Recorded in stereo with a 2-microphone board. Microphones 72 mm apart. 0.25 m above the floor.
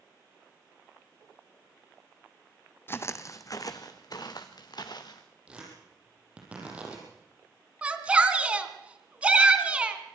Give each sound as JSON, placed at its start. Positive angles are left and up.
{"t": 2.9, "sound": "footsteps", "side_deg": 30, "distance_m": 0.9}
{"t": 5.5, "sound": "tearing paper", "side_deg": -20, "distance_m": 6.5}
{"t": 7.8, "sound": "a shout", "side_deg": -20, "distance_m": 2.0}